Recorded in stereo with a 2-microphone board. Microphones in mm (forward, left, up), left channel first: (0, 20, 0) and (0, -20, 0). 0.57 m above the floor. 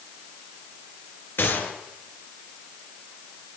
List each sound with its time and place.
1.4 s a gunshot: 60° left (ahead or behind), 4 m